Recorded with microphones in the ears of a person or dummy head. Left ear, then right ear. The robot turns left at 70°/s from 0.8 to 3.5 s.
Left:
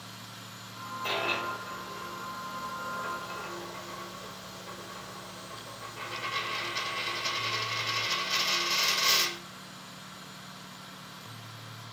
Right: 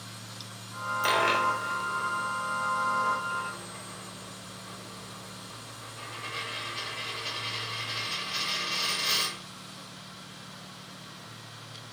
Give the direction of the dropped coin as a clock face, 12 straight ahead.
3 o'clock.